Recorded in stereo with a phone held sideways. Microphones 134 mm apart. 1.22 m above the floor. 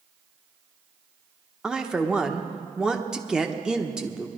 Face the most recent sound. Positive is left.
turn(degrees=-5)  # may be behind; listen again after turning